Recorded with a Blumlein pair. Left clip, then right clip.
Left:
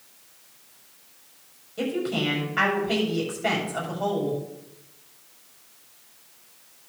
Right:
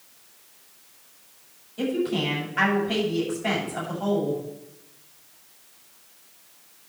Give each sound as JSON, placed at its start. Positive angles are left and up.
{"t": 1.8, "sound": "a woman speaking", "azimuth_deg": 55, "distance_m": 7.5}